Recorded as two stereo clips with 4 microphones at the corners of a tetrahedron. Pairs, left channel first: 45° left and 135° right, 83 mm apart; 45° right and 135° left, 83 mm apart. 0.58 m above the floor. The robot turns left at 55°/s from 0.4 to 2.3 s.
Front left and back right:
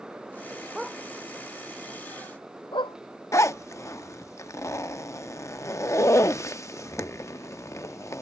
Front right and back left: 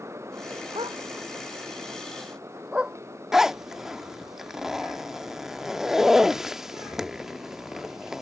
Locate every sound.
0.8 s a dog barking: 140° left; by 3.0 s 55° left
3.3 s a zipper: 55° left